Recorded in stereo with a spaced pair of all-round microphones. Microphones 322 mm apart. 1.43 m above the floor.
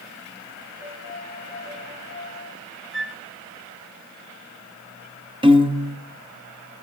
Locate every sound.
0.8 s a piano: 55° right (ahead or behind), 8 m
2.9 s a flute: 40° right (ahead or behind), 1.1 m
5.4 s a piano: 15° right (ahead or behind), 1.1 m